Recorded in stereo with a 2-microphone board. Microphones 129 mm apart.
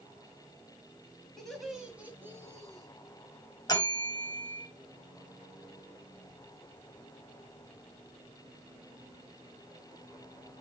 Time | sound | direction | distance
1.4 | laughter | 5° left (ahead or behind) | 2 m
3.7 | a bell | 30° left (ahead or behind) | 2 m